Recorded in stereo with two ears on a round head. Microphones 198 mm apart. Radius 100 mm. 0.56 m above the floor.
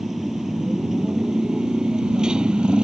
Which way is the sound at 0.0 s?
Centre (ahead or behind).